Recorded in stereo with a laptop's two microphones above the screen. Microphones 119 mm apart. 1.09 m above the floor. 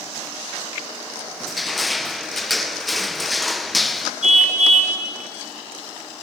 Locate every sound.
1.4 s crushing: centre (ahead or behind), 0.7 m
4.2 s a car horn: 75° right (ahead or behind), 5 m